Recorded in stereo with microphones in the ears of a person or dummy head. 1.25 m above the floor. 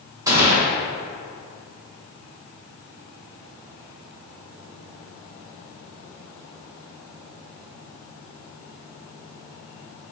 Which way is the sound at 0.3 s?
15° right (ahead or behind).